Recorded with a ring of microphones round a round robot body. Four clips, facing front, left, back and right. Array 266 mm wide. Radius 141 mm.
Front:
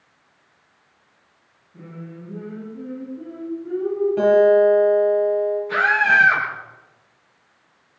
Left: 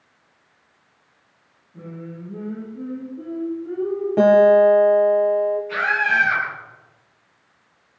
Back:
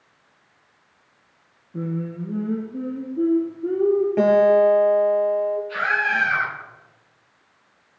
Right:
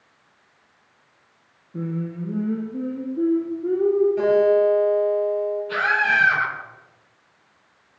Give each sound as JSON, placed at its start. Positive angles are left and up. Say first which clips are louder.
{"t": 1.7, "sound": "singing", "louder": "right 7 dB, back 10 dB", "azimuth_deg": -135, "distance_m": 8.5}
{"t": 4.2, "sound": "a guitar", "louder": "left 10 dB, front 2 dB", "azimuth_deg": 105, "distance_m": 6.5}
{"t": 5.7, "sound": "a scream", "louder": "even, front 5 dB", "azimuth_deg": -20, "distance_m": 9.5}